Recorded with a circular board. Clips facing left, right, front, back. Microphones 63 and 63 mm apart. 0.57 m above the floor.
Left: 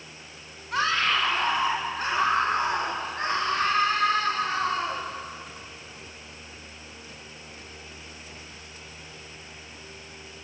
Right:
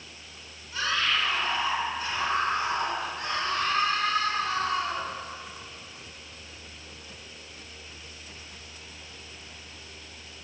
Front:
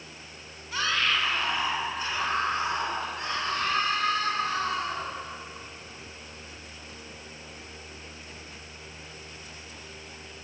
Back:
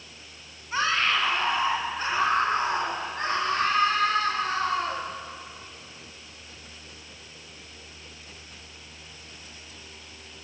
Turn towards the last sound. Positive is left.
turn(degrees=140)